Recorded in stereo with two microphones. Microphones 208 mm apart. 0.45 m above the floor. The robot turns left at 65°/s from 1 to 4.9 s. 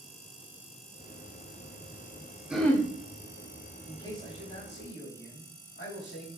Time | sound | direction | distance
2.5 | throat clearing | 5° right (ahead or behind) | 0.7 m
3.9 | a man speaking | 170° left | 2.5 m